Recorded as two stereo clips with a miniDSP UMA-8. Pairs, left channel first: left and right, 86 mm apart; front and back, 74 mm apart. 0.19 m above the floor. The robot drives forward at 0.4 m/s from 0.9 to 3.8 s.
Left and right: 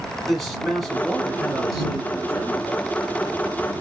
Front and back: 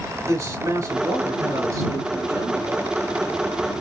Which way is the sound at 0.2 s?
Straight behind.